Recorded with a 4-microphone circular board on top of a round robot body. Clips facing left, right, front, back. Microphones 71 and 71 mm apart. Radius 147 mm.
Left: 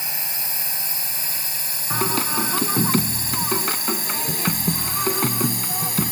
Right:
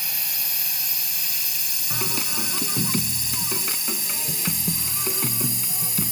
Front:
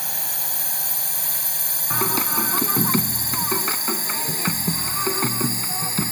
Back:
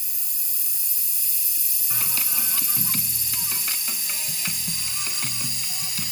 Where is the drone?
25° left; by 6.1 s 55° left.